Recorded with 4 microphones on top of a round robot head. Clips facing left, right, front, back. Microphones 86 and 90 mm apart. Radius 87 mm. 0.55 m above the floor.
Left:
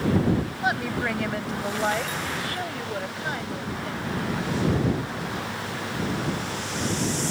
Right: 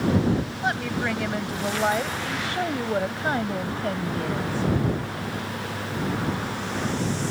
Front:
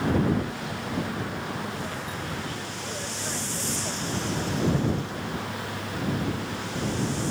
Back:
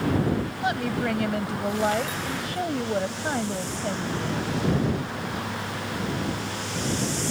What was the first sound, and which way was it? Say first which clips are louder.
A woman speaking: even, back 5 dB; 170° left.